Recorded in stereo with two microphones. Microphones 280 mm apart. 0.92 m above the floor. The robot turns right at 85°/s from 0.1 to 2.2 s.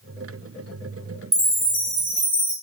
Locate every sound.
1.3 s a chime: 170° right, 1.4 m; by 2.5 s 95° right, 1.4 m